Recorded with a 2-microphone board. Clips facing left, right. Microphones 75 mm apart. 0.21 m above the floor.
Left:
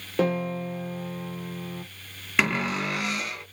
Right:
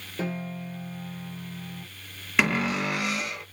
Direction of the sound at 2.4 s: Centre (ahead or behind).